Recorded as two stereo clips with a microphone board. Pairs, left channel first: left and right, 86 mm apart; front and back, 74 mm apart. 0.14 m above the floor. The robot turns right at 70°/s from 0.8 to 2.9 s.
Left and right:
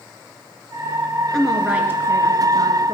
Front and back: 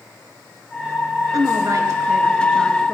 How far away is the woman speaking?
About 2 m.